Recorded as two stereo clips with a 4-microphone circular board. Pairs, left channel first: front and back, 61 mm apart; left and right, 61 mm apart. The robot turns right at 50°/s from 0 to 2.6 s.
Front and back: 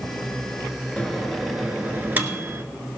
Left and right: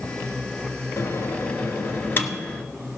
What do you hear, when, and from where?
1.0 s a microwave: 70° left, 1.3 m; by 2.6 s 150° left, 1.3 m